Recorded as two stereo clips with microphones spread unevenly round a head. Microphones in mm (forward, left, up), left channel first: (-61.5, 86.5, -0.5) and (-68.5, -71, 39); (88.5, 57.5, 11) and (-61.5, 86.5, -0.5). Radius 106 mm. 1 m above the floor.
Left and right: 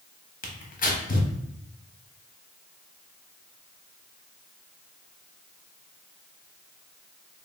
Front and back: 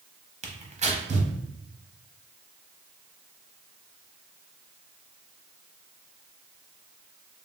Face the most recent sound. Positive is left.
turn(degrees=120)